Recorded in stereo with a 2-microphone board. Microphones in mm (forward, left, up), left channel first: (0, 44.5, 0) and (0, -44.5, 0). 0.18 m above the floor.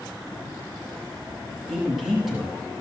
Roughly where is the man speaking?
Centre.